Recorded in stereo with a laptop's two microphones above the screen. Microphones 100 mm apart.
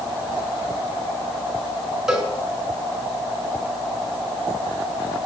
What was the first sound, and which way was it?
A cowbell, 5° right (ahead or behind).